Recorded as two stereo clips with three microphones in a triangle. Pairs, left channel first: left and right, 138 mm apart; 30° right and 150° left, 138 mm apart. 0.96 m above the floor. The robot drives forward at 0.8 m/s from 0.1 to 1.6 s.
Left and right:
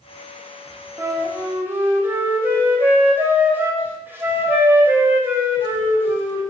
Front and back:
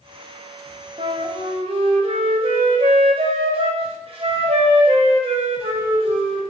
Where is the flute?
160° right, 1.1 m; by 6.4 s 165° right, 1.6 m.